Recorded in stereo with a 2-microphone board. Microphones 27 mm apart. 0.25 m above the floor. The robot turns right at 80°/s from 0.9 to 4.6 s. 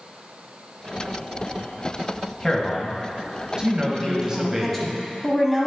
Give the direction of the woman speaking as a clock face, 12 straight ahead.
8 o'clock.